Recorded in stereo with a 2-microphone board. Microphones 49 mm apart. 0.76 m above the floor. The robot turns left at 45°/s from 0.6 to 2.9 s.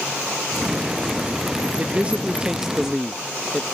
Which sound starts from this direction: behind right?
A man speaking, at 1.8 s.